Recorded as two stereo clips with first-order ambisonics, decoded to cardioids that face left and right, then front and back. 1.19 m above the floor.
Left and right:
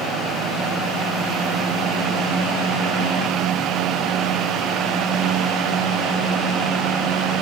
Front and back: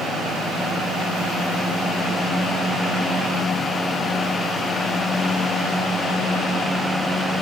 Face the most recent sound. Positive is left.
No sound to turn to.